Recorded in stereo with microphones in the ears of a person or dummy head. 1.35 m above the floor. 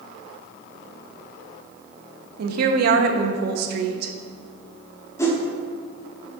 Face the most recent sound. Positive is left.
turn(degrees=10)  # may be behind; listen again after turning